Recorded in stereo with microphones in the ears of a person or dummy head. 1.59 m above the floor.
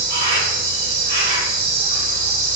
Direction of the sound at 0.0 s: 55° right (ahead or behind).